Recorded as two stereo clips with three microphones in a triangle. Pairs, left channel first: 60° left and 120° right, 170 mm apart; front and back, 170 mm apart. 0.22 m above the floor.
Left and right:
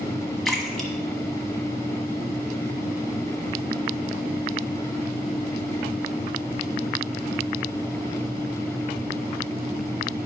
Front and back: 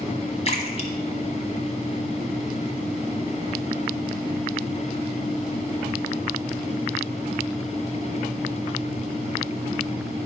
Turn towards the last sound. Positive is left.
turn(degrees=-30)